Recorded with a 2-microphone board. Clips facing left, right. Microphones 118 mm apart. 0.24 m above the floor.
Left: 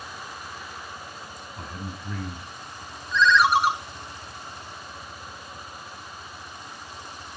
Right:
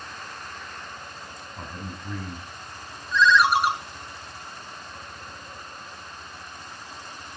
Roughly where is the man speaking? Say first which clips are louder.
Even; centre.